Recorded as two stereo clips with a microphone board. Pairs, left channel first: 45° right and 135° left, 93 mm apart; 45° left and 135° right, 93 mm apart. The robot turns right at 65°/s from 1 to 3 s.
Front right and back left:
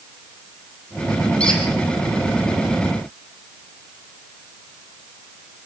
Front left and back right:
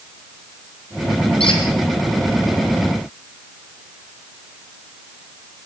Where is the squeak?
35° left, 4.5 m; by 1.6 s 45° left, 4.5 m.